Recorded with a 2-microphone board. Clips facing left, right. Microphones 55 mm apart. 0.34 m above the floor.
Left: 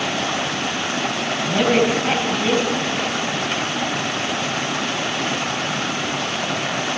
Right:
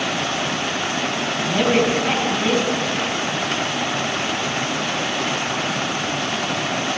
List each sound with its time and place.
1.4 s a woman speaking: centre (ahead or behind), 3.5 m